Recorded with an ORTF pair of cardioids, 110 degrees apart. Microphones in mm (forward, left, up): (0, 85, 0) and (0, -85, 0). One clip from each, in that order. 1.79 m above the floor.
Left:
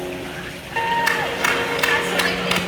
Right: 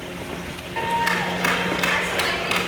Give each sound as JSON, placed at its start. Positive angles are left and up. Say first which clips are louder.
{"t": 0.8, "sound": "a clap", "louder": "left 2 dB", "azimuth_deg": 25, "distance_m": 3.5}